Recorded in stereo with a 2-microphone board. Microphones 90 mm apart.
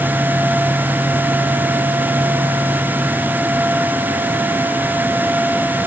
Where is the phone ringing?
I don't hear a phone ringing.